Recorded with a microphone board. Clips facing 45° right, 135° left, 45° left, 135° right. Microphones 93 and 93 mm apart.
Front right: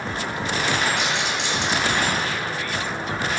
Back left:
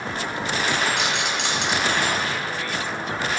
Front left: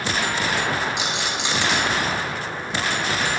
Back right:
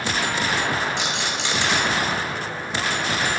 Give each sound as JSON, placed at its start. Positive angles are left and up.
{"t": 1.0, "sound": "a rattle", "azimuth_deg": 120, "distance_m": 3.5}